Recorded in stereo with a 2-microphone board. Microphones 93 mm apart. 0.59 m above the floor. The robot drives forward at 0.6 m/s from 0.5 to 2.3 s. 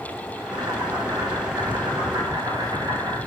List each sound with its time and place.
0.4 s boiling: 60° right (ahead or behind), 4 m; by 3.2 s 45° right (ahead or behind), 4.5 m